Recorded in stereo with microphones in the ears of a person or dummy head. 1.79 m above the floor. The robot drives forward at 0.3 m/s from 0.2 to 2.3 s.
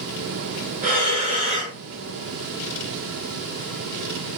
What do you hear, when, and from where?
0.8 s breathing: 40° right (ahead or behind), 0.8 m; by 1.8 s 30° right (ahead or behind), 1.0 m